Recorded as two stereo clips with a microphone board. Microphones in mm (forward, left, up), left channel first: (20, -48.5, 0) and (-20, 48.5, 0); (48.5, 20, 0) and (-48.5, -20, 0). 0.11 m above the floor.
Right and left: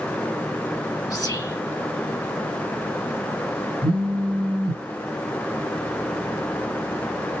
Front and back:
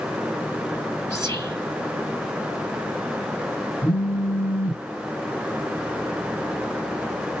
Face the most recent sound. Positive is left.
turn(degrees=90)